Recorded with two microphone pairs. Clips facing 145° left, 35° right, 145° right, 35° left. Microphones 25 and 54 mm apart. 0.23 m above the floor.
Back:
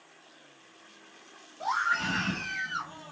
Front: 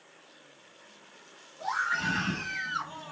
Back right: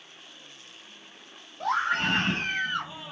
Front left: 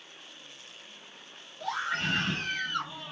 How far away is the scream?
About 1.6 m.